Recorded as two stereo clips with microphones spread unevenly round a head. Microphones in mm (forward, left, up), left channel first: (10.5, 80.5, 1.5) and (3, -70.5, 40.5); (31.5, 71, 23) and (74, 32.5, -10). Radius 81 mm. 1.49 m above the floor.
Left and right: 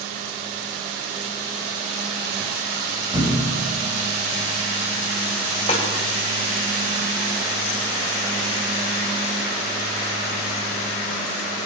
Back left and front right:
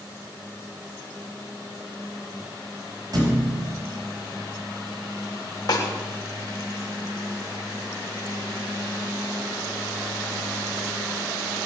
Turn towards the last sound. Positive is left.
turn(degrees=145)